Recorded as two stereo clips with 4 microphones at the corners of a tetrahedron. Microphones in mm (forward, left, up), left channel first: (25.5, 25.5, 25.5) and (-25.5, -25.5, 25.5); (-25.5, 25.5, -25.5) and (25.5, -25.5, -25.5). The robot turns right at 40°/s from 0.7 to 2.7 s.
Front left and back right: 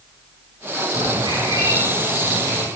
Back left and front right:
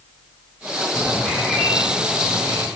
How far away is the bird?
About 9.5 m.